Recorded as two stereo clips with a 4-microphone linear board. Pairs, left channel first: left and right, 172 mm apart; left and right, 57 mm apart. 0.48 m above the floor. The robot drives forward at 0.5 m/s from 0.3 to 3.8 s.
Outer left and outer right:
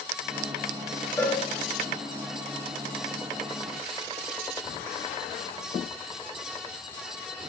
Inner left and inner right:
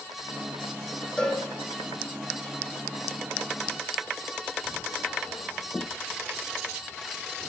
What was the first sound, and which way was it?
A cowbell, 15° left (ahead or behind).